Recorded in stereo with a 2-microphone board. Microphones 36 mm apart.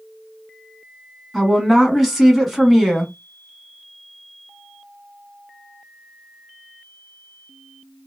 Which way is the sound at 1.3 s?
5° right (ahead or behind).